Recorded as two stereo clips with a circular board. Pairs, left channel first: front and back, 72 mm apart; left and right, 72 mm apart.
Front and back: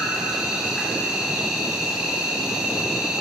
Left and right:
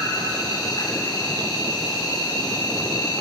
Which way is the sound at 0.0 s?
100° left.